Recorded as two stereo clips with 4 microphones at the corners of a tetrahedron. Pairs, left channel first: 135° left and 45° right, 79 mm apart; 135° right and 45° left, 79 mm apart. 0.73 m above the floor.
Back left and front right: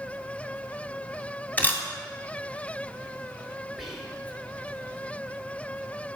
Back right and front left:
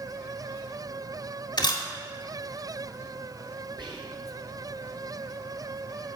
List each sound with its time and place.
1.6 s a camera shutter: 155° right, 1.4 m
3.8 s whispering: 45° left, 3 m